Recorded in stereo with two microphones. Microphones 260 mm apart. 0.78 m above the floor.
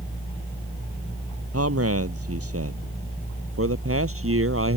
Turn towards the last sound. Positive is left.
turn(degrees=-55)  # may be behind; listen again after turning